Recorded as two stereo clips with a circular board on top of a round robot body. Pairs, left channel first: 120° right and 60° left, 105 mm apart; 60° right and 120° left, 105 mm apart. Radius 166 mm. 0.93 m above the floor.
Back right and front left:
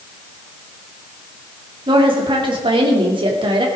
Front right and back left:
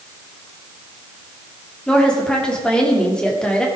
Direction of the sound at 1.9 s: 20° left.